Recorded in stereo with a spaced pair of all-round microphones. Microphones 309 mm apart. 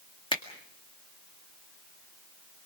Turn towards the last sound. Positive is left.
turn(degrees=15)  # may be behind; listen again after turning